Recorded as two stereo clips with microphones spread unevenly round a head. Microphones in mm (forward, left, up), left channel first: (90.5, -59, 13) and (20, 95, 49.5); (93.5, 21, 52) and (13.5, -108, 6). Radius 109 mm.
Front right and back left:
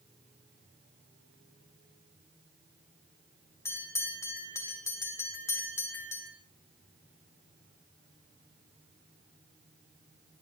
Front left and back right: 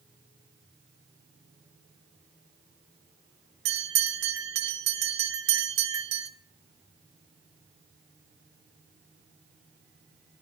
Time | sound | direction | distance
3.6 | a bell | 150° right | 0.9 m